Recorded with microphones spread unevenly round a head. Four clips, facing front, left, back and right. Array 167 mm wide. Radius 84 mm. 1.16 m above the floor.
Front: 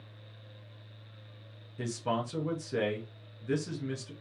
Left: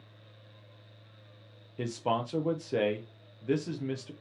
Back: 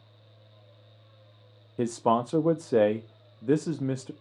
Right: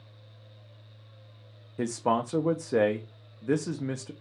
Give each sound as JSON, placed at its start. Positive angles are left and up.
{"t": 1.8, "sound": "a man speaking", "azimuth_deg": -165, "distance_m": 0.5}